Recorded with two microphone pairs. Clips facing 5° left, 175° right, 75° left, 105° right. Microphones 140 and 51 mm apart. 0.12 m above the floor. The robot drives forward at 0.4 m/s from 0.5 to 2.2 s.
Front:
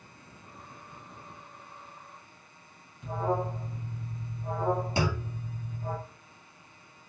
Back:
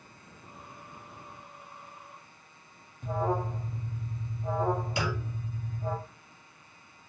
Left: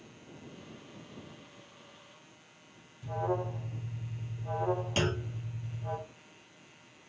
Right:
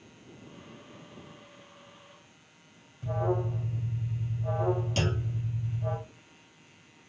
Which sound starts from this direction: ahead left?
A clunk, at 5.0 s.